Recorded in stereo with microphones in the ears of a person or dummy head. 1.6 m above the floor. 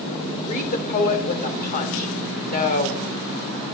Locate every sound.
0.5 s a woman speaking: 40° left (ahead or behind), 0.9 m